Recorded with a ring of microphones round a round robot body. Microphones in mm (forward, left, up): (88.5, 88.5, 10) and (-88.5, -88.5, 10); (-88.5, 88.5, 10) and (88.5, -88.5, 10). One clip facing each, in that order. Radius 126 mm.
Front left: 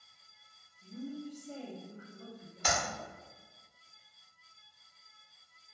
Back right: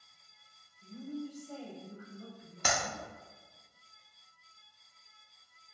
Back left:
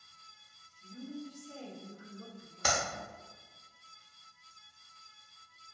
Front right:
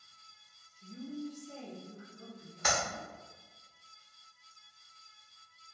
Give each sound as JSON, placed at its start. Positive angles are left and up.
{"t": 0.8, "sound": "a woman speaking", "azimuth_deg": -40, "distance_m": 0.5}
{"t": 2.6, "sound": "a clap", "azimuth_deg": -170, "distance_m": 0.5}